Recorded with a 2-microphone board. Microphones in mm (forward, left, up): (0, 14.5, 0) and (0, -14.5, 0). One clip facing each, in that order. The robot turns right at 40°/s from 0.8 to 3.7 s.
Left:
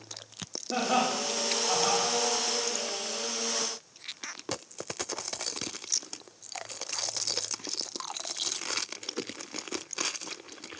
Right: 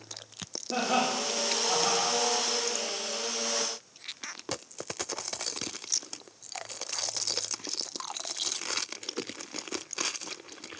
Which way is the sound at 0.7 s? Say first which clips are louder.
Even; 10° left (ahead or behind).